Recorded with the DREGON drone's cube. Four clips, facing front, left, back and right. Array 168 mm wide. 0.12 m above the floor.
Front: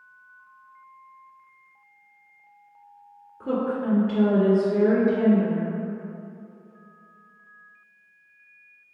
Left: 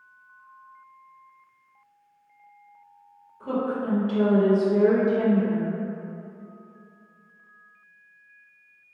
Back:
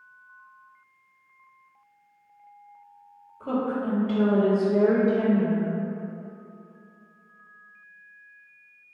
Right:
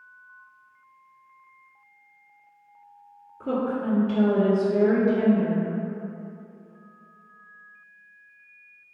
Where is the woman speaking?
35° right, 1.8 m; by 5.7 s 5° left, 2.5 m.